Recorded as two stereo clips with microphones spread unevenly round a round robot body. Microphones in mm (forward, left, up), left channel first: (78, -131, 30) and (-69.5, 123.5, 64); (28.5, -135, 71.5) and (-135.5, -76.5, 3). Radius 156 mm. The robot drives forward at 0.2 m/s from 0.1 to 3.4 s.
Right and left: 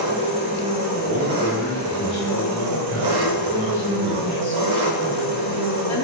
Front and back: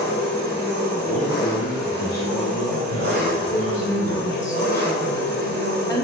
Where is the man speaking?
90° left, 1.6 m; by 4.4 s 110° left, 1.7 m.